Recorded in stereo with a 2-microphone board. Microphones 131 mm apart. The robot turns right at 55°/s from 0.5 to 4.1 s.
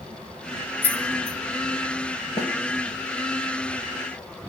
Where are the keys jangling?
15° right (ahead or behind), 0.8 m; by 1.4 s 20° right (ahead or behind), 0.8 m.